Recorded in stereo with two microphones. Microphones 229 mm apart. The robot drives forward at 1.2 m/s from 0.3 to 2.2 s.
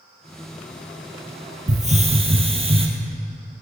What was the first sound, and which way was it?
A hiss, 35° right (ahead or behind).